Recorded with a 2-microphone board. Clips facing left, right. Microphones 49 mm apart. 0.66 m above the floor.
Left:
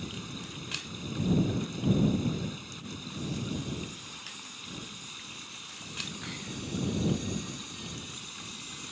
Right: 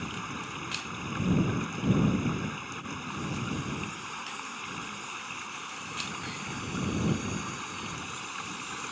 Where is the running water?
45° right (ahead or behind).